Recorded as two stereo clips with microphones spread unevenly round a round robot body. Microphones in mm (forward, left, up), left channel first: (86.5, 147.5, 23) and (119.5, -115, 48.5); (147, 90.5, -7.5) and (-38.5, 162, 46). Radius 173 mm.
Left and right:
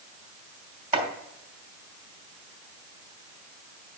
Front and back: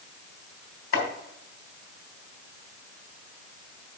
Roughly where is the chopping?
Ahead.